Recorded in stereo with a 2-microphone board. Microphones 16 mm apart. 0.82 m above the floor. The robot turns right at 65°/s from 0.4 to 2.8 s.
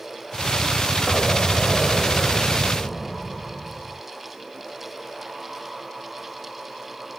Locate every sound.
1.1 s an explosion: 30° left; by 4.0 s 145° left